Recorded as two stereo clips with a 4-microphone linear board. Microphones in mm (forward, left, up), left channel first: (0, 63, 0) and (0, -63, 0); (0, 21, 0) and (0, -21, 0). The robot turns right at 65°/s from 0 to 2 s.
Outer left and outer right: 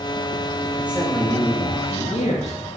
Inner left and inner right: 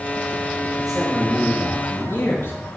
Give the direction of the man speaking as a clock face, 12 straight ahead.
1 o'clock.